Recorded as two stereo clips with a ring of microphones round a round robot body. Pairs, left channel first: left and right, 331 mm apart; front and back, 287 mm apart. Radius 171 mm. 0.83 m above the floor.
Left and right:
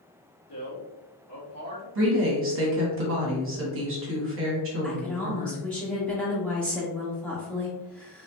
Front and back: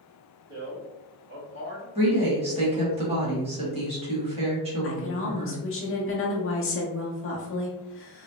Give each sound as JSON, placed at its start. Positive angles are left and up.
{"t": 0.5, "sound": "a man speaking", "azimuth_deg": 130, "distance_m": 1.9}
{"t": 1.9, "sound": "a woman speaking", "azimuth_deg": -120, "distance_m": 1.1}
{"t": 4.8, "sound": "a woman speaking", "azimuth_deg": 5, "distance_m": 0.7}